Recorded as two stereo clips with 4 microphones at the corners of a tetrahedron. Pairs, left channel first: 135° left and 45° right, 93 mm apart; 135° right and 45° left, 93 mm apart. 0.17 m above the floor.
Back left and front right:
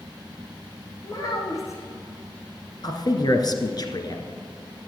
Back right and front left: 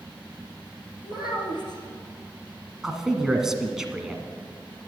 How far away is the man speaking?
About 1.5 m.